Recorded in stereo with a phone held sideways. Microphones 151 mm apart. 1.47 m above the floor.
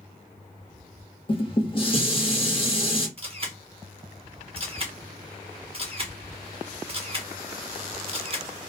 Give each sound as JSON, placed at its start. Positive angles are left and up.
{"t": 1.3, "sound": "dishes clattering", "side_deg": 35, "distance_m": 1.0}
{"t": 3.2, "sound": "a camera shutter", "side_deg": -35, "distance_m": 0.9}